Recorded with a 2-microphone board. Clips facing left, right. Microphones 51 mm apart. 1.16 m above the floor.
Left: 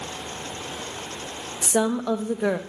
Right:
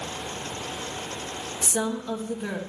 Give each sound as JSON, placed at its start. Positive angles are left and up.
{"t": 1.6, "sound": "a woman speaking", "side_deg": 75, "distance_m": 1.0}